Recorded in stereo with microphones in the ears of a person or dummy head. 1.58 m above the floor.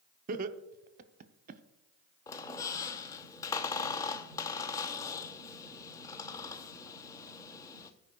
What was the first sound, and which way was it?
Laughter, 45° right (ahead or behind).